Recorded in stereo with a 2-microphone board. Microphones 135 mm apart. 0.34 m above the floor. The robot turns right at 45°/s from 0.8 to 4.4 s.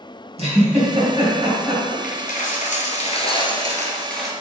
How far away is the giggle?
About 3 m.